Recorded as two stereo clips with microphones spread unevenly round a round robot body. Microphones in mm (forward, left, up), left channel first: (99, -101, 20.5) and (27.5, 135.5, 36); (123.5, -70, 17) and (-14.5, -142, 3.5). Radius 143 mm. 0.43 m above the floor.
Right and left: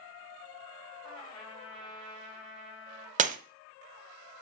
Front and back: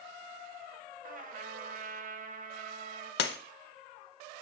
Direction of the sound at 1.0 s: 145° right.